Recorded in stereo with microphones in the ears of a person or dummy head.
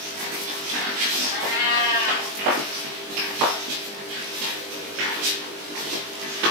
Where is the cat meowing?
40° left (ahead or behind), 0.6 m.